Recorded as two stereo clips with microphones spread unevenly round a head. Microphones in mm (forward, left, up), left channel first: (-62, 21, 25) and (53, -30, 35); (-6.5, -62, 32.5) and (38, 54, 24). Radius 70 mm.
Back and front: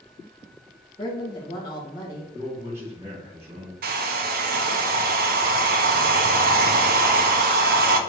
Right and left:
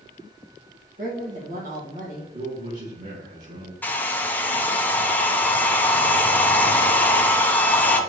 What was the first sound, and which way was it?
A woman speaking, 95° left.